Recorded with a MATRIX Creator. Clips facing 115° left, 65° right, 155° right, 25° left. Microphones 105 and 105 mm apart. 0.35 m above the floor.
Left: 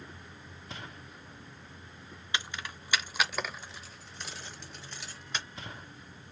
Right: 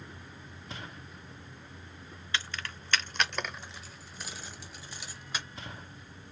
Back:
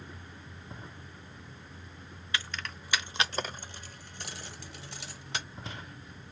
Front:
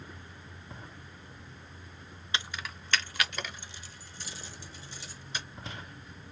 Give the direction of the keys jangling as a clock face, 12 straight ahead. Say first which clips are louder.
Even, even; 10 o'clock.